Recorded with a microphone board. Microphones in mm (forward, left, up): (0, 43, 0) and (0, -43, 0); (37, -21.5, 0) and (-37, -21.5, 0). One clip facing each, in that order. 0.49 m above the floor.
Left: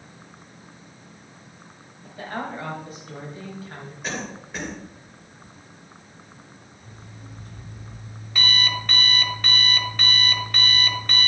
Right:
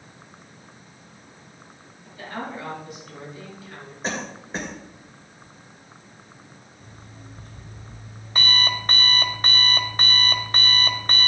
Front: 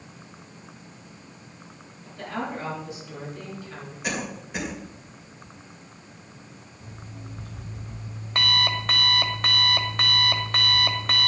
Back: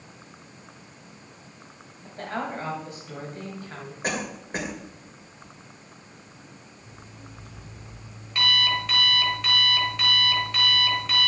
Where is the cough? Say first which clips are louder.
Right 2 dB, back 1 dB; 140° right, 2.5 m.